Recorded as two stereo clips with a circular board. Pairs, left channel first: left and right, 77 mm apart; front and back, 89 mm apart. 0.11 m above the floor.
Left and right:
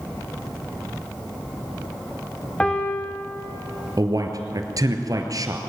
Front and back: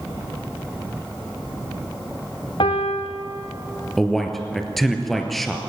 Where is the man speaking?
85° right, 2 m.